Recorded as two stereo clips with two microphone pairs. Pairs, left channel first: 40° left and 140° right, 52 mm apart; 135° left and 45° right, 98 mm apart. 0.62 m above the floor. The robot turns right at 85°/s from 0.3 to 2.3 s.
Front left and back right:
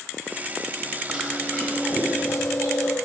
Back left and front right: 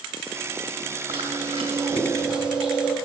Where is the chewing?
65° right, 2.5 m; by 3.0 s 35° left, 2.5 m.